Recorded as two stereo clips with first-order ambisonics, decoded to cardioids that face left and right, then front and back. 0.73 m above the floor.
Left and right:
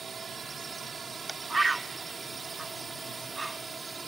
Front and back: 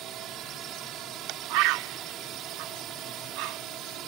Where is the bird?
170° right.